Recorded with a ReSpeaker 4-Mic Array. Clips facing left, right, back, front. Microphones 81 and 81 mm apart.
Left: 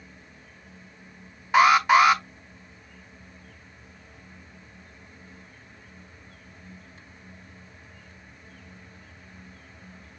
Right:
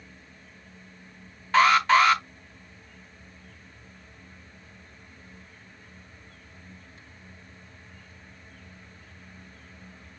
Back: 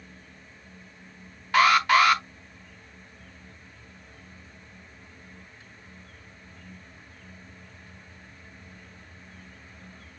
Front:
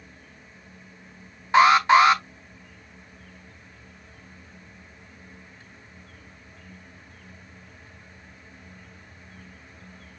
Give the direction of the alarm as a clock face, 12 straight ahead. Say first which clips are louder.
Left 2 dB, front 4 dB; 11 o'clock.